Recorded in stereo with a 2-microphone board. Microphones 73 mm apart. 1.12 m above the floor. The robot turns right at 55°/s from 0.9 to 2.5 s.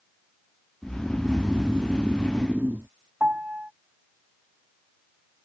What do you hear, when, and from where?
0.8 s snoring: 5° right (ahead or behind); by 2.9 s 25° right (ahead or behind)
3.2 s a piano: 20° right (ahead or behind)